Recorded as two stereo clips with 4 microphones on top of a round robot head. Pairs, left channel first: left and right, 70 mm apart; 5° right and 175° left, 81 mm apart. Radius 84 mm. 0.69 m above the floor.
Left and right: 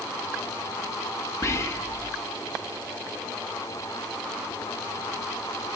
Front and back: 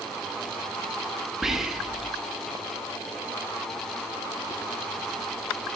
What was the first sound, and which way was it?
Whispering, 95° left.